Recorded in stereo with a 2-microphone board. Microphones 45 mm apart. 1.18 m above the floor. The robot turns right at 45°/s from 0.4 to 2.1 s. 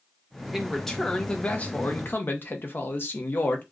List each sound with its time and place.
0.5 s a man speaking: 5° right, 1.0 m; by 3.6 s 65° left, 1.0 m